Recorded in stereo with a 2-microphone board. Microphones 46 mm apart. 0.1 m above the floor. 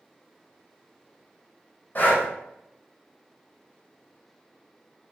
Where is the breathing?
40° left (ahead or behind), 1.1 m.